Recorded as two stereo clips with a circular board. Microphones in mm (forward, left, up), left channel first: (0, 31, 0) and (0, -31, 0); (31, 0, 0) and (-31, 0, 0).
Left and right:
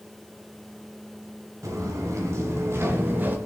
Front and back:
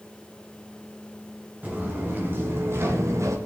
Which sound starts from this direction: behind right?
Footsteps, at 1.6 s.